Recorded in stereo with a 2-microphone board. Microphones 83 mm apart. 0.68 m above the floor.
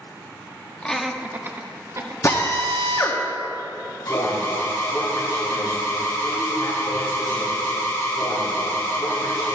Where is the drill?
45° left (ahead or behind), 1.3 m.